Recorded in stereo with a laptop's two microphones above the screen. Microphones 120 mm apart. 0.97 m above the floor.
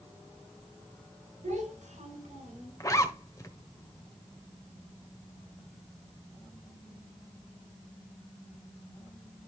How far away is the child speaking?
About 3.5 m.